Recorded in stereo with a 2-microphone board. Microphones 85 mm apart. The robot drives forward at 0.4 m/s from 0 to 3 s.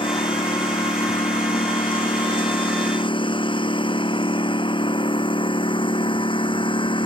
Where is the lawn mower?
80° left; by 7.1 s 85° left.